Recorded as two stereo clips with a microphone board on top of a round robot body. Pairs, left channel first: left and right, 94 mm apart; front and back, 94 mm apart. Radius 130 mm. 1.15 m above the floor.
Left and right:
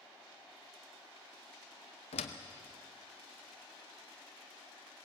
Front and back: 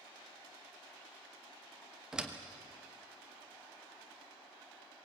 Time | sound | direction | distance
2.1 | a door slam | 100° left | 1.0 m